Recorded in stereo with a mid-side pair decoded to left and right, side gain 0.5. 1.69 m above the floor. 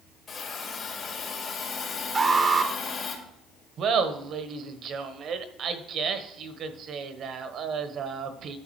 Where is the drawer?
No drawer in this recording.